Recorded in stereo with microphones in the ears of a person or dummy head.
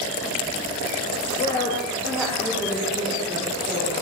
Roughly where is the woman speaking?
Left.